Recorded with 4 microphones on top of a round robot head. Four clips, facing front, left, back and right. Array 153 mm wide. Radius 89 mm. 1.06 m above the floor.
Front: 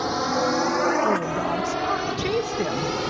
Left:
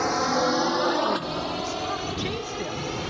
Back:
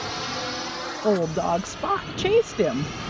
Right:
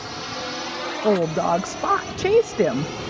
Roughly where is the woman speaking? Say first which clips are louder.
Right 8 dB, back 1 dB; behind right.